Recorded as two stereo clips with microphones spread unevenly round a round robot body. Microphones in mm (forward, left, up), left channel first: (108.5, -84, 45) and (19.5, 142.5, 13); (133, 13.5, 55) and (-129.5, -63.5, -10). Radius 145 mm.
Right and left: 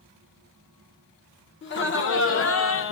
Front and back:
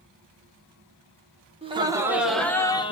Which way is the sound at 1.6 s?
110° right.